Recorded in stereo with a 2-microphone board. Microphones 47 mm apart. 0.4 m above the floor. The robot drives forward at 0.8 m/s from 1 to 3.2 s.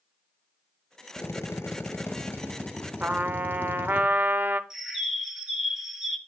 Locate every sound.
1.2 s a drill: 65° left (ahead or behind), 1.0 m; by 4.0 s 35° left (ahead or behind), 1.7 m
3.0 s a trumpet: 35° right (ahead or behind), 0.6 m; by 4.6 s 40° right (ahead or behind), 0.5 m
4.7 s a bird: 10° right (ahead or behind), 1.0 m